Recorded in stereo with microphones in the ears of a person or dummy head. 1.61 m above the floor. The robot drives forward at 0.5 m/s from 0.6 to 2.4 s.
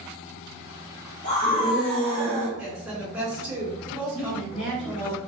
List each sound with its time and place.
1.2 s a scream: 40° left (ahead or behind), 1.0 m; by 2.5 s 25° left (ahead or behind), 1.5 m
2.6 s a woman speaking: centre (ahead or behind), 1.7 m
4.1 s a woman speaking: 35° left (ahead or behind), 1.3 m